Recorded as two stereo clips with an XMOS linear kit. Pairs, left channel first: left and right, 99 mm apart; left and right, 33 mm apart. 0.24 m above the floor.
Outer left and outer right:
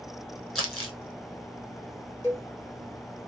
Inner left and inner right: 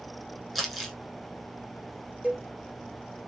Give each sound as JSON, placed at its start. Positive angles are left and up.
{"t": 0.6, "sound": "crumpling", "side_deg": 0, "distance_m": 2.5}
{"t": 2.2, "sound": "a cowbell", "side_deg": -30, "distance_m": 3.5}